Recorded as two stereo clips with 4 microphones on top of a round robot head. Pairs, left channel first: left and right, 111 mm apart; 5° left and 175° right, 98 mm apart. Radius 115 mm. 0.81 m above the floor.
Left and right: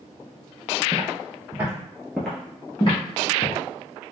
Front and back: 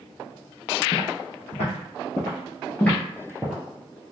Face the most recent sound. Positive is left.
turn(degrees=100)